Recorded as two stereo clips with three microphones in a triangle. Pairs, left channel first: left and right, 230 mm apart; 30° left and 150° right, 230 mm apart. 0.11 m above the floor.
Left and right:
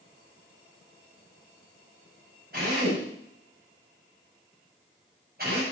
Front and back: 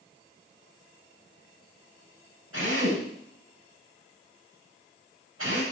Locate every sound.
2.5 s a drill: 135° right, 10 m